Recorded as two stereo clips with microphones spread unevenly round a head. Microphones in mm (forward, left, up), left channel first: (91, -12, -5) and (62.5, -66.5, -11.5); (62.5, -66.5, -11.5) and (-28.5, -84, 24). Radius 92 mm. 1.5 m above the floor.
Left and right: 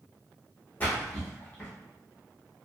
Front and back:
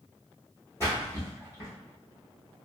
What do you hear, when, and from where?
0.8 s a splash: 95° left, 0.8 m